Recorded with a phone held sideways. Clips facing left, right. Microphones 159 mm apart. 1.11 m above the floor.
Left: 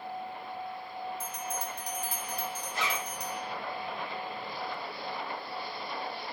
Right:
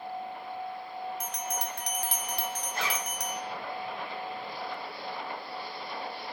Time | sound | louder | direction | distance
1.2 | a bell | right 2 dB | 75° right (ahead or behind) | 0.8 m
2.7 | a zipper | left 1 dB | 55° right (ahead or behind) | 3.5 m